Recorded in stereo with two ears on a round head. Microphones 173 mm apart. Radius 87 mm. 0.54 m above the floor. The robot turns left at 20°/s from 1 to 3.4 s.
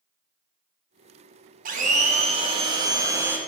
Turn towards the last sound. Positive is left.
turn(degrees=-170)